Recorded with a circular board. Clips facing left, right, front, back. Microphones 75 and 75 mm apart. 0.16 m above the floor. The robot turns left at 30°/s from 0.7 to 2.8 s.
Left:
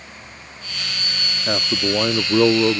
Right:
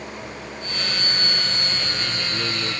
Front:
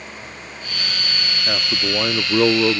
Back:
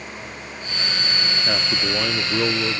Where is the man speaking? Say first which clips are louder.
Left 7 dB, front 2 dB; 95° left; by 2.8 s 55° left.